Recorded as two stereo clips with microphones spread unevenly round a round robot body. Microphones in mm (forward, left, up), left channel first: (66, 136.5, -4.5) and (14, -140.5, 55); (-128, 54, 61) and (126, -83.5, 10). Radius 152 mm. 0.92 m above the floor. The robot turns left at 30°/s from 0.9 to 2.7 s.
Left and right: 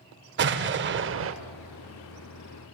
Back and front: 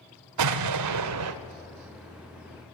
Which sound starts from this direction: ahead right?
An explosion, at 0.4 s.